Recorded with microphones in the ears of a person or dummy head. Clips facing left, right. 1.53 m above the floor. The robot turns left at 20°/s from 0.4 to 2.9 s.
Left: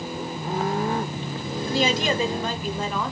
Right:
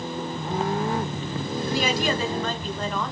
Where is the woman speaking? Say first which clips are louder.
Left 2 dB; 30° left (ahead or behind), 1.0 m; by 3.1 s 5° left (ahead or behind), 1.0 m.